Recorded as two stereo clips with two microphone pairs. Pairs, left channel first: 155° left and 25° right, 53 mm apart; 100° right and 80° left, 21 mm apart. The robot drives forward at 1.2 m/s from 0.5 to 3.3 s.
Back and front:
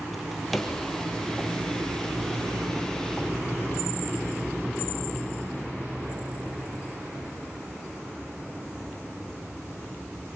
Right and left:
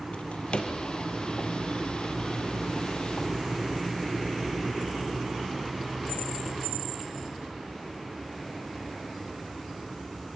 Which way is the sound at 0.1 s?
115° right.